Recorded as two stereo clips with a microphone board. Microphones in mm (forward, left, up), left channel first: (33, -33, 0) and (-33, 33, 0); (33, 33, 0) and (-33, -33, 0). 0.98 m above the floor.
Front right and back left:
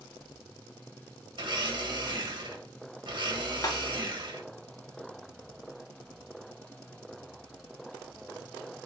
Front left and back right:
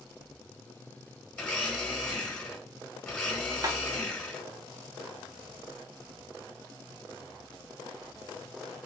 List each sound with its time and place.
1.3 s a blender: 120° left, 1.0 m
3.6 s a snare drum: 85° right, 0.8 m